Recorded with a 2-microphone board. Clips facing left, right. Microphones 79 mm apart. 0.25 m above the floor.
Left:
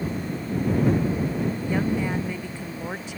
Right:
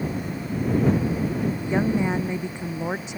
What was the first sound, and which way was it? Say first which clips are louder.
A woman speaking: right 4 dB; 20° right (ahead or behind).